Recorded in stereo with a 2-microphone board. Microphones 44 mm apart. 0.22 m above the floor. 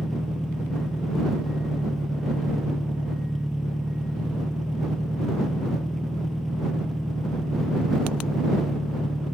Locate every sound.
0.0 s an engine running: 5° left (ahead or behind)